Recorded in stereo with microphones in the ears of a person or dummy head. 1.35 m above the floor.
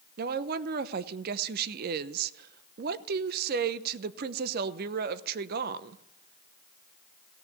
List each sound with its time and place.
0.2 s a woman speaking: 55° right (ahead or behind), 0.9 m